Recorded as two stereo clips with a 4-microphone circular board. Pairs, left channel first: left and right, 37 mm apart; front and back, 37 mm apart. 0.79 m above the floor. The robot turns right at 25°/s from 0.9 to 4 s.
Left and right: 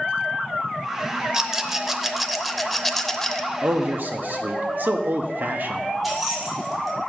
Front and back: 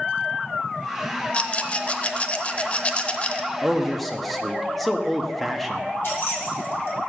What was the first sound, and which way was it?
A rattle, 25° right.